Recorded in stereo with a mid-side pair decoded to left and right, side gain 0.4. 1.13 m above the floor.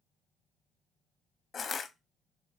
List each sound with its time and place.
1.5 s crushing: 50° left, 0.8 m